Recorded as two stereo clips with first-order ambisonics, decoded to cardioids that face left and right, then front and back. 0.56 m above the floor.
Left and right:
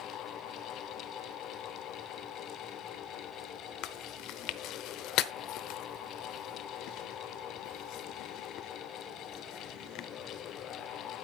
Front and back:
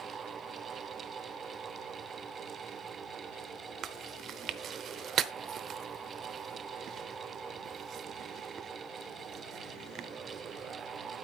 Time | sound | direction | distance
3.8 | chewing | 125° left | 0.8 m